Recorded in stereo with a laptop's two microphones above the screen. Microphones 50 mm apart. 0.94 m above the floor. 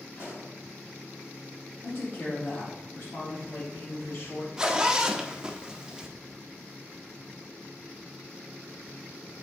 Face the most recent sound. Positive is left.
turn(degrees=-15)  # may be behind; listen again after turning